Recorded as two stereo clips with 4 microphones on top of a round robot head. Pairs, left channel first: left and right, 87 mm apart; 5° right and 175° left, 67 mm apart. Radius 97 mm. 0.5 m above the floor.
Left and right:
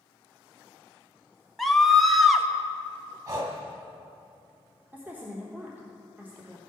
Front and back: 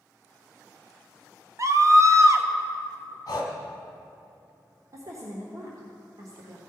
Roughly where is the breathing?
Ahead right.